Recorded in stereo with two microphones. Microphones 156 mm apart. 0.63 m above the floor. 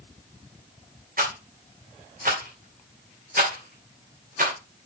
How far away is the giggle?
No giggle in this recording.